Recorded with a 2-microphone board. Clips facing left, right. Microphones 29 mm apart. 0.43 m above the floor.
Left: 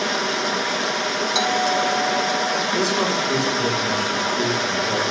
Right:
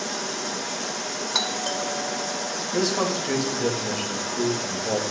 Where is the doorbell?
20° right (ahead or behind), 2 m.